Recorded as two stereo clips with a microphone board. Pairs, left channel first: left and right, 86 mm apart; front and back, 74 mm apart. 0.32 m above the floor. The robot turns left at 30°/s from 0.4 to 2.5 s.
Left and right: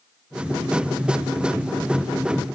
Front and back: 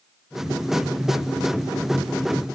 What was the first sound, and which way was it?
Only background noise.